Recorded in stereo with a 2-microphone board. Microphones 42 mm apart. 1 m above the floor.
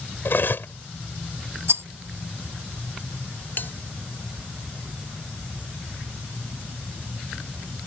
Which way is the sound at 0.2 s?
60° left (ahead or behind).